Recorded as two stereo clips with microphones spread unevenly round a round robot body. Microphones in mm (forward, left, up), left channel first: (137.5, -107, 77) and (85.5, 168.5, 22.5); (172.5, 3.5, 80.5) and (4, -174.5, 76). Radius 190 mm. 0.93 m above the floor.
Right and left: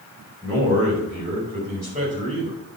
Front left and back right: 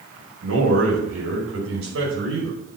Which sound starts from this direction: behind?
A man speaking, at 0.4 s.